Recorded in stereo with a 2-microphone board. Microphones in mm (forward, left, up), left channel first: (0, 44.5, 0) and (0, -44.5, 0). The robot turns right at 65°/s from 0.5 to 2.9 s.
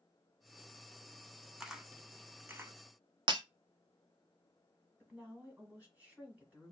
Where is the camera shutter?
5° right (ahead or behind), 0.5 m; by 2.7 s 25° right (ahead or behind), 0.5 m.